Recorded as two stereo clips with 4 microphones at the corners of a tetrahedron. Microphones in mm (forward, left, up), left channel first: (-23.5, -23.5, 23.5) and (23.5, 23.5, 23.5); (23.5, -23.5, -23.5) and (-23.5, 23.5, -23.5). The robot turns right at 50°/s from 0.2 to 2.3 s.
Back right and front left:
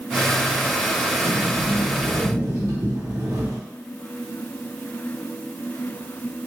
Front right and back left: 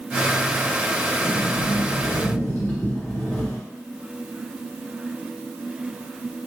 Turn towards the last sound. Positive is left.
turn(degrees=30)